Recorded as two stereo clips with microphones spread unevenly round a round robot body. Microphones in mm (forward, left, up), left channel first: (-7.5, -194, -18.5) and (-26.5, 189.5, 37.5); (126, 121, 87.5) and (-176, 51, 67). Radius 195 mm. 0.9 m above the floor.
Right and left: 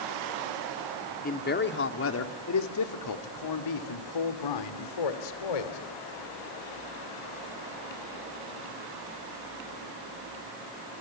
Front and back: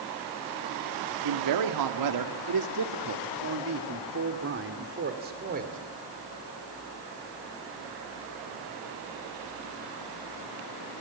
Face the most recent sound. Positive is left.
turn(degrees=-100)